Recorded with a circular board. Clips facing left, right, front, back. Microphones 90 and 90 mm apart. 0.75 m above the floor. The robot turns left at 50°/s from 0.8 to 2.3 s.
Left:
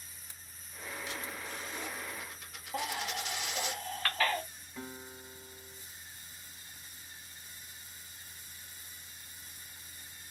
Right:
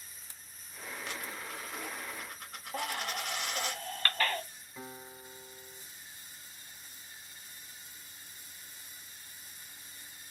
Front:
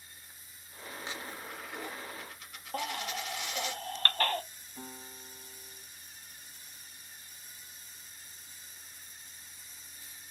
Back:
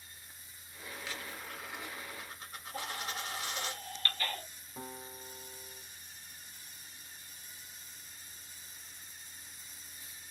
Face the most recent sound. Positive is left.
turn(degrees=180)